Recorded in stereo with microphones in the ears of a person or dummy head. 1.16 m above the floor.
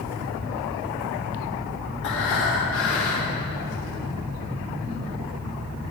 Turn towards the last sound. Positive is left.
turn(degrees=60)  # may be behind; listen again after turning